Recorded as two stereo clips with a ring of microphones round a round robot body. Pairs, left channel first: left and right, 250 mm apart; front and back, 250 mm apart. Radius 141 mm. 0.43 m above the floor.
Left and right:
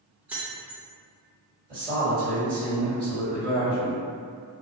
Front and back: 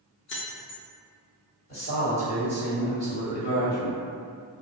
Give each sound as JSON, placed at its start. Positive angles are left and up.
{"t": 0.3, "sound": "keys jangling", "azimuth_deg": -10, "distance_m": 0.6}
{"t": 1.7, "sound": "a man speaking", "azimuth_deg": -45, "distance_m": 2.0}